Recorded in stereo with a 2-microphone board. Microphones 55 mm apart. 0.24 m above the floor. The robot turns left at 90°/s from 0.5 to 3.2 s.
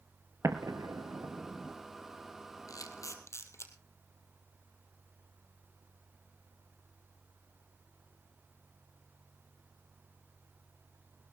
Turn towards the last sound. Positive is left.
turn(degrees=50)  # may be behind; listen again after turning